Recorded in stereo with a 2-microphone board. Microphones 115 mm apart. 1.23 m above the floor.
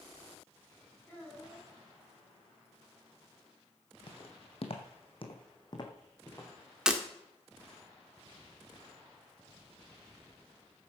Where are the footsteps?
50° left (ahead or behind), 2.5 m; by 6.5 s 25° left (ahead or behind), 3.5 m.